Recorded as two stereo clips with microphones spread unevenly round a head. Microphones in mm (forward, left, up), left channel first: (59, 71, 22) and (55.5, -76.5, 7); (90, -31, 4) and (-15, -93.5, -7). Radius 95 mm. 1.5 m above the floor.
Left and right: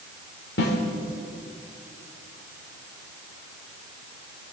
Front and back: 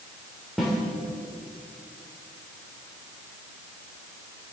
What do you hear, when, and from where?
0.6 s a snare drum: 120° left, 3.5 m